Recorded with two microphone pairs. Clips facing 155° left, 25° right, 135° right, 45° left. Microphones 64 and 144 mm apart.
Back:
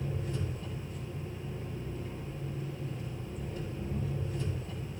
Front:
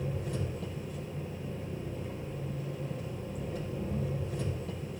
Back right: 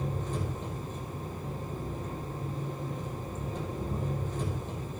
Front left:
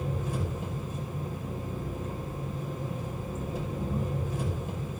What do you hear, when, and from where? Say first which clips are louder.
0.0 s an engine running: front 1 dB, front left 1 dB; 35° right, 5 m